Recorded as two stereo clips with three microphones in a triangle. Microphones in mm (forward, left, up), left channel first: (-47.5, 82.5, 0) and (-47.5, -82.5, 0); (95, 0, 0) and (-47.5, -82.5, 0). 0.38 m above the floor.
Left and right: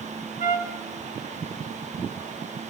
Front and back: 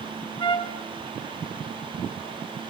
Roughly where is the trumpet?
Left.